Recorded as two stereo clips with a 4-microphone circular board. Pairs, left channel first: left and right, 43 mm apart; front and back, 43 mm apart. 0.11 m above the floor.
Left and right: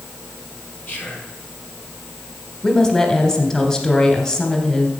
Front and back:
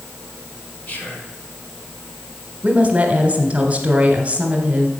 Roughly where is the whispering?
Ahead left.